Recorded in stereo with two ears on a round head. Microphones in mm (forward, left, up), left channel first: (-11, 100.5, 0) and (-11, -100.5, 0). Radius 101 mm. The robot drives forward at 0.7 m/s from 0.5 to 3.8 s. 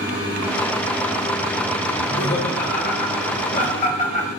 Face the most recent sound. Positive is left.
turn(degrees=35)  # may be behind; listen again after turning